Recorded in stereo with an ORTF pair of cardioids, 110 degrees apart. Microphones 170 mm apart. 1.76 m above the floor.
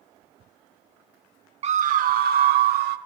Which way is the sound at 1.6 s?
40° right.